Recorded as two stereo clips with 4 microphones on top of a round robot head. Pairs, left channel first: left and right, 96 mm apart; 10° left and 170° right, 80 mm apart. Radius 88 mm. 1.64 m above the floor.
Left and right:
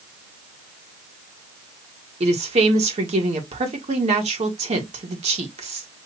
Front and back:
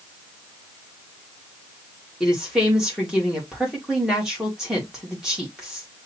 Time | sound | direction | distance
2.2 | a woman speaking | 85° right | 1.5 m